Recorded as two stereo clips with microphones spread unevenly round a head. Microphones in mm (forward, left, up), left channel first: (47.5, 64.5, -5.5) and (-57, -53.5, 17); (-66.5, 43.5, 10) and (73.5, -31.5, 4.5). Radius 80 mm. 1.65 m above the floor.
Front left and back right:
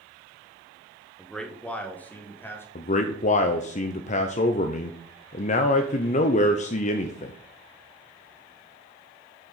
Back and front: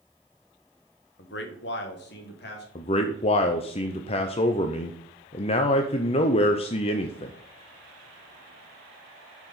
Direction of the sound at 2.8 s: 95° left.